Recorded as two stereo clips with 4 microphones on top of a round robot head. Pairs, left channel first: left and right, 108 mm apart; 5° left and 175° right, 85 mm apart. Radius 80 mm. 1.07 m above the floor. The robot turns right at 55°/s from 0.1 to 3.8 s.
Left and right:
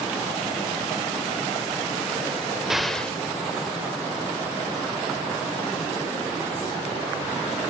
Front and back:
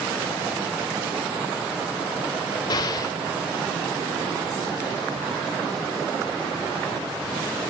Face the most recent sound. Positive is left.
turn(degrees=55)